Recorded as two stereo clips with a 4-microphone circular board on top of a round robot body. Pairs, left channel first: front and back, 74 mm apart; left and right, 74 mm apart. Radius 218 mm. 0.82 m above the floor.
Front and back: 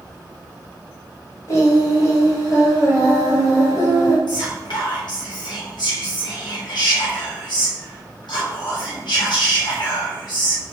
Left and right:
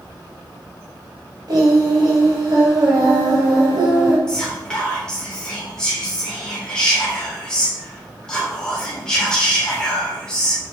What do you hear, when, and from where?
1.5 s singing: 50° right, 1.0 m
4.3 s whispering: 10° left, 3.5 m